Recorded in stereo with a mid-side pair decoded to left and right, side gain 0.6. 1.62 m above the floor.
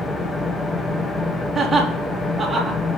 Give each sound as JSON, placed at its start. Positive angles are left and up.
{"t": 0.0, "sound": "an engine running", "azimuth_deg": 15, "distance_m": 1.0}
{"t": 1.6, "sound": "laughter", "azimuth_deg": -20, "distance_m": 2.5}